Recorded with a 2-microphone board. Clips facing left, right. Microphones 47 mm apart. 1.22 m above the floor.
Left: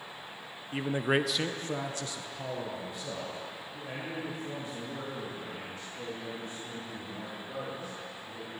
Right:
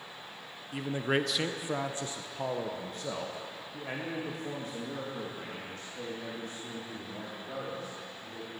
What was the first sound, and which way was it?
A man speaking, 30° left (ahead or behind).